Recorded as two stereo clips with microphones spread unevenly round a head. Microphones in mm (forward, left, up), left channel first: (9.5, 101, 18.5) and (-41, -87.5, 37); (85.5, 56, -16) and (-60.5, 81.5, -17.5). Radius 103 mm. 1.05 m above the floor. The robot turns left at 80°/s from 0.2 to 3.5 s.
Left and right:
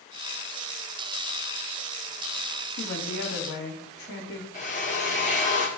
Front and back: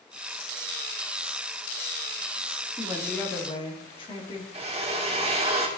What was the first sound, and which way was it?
A woman speaking, 105° left.